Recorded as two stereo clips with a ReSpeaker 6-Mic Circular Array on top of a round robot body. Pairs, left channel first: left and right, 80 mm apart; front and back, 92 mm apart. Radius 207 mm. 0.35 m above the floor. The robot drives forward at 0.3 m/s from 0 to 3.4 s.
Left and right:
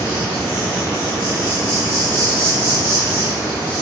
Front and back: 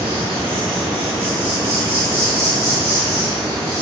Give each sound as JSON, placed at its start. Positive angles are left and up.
{"t": 0.0, "sound": "an insect", "azimuth_deg": 155, "distance_m": 0.7}